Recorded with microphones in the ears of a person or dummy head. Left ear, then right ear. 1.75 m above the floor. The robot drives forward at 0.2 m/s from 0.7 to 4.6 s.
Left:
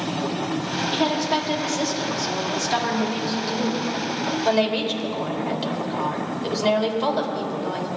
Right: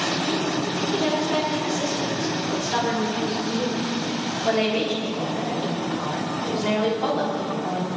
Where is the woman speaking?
60° left (ahead or behind), 3.5 m; by 7.9 s 70° left (ahead or behind), 3 m.